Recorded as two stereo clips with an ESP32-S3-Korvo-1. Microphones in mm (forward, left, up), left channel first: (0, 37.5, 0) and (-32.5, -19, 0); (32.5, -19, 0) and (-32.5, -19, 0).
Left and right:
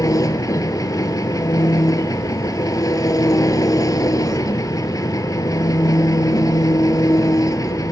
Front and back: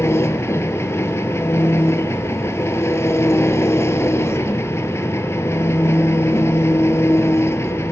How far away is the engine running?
About 1.0 m.